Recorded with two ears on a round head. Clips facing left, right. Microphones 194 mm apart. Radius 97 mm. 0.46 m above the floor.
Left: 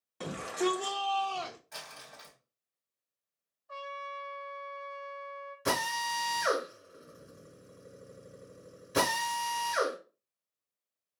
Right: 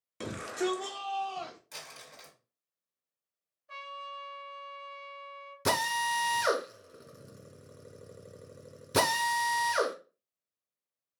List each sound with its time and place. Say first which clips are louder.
0.2 s a shout: left 1 dB; 30° right (ahead or behind), 0.8 m; by 1.6 s 40° left (ahead or behind), 1.0 m
1.7 s crumpling: left 1 dB; 50° right (ahead or behind), 2.0 m
3.7 s a trumpet: left 4 dB; 80° right, 2 m
5.7 s a drill: right 2 dB; 50° right (ahead or behind), 0.8 m